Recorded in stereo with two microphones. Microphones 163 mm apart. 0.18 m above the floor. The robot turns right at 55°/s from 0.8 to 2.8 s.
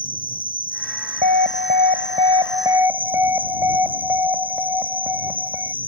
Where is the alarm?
105° right; by 5.7 s 20° right.